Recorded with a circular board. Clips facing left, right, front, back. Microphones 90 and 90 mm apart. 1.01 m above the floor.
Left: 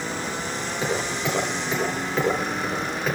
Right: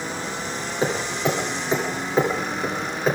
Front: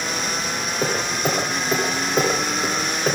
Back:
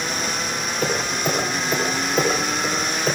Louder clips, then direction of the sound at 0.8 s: Right 3 dB, even; 30° right.